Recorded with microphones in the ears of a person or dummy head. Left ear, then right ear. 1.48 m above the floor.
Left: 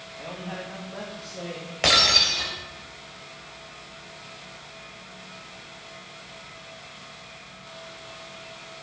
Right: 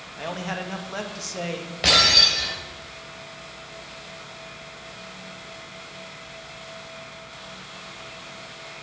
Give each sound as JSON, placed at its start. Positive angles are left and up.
{"t": 0.2, "sound": "a man speaking", "side_deg": -70, "distance_m": 2.0}
{"t": 1.8, "sound": "breaking glass", "side_deg": 35, "distance_m": 3.5}